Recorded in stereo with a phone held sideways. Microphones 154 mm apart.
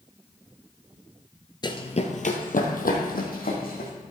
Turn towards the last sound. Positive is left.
turn(degrees=75)  # may be behind; listen again after turning